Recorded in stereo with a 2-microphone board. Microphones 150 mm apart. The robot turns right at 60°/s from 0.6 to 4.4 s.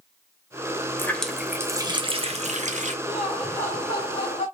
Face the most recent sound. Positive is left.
turn(degrees=65)